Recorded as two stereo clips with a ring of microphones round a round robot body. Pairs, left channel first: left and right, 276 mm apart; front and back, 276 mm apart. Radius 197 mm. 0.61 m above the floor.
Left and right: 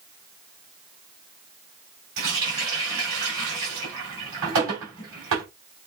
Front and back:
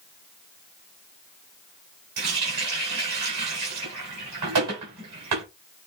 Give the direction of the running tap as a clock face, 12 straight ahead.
5 o'clock.